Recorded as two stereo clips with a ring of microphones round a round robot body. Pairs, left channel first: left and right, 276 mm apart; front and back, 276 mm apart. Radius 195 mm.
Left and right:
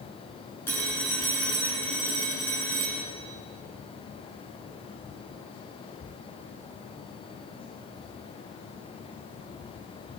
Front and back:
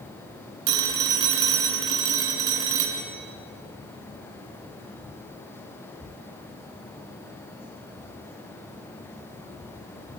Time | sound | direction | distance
0.7 | a phone ringing | 175° left | 5 m